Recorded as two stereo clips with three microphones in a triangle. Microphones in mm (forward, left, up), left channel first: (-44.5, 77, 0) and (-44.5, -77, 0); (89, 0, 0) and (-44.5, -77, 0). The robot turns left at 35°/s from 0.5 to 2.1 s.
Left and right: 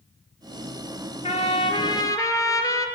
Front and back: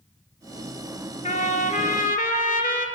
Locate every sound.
1.2 s a trumpet: 55° left, 0.7 m; by 2.9 s 25° left, 0.7 m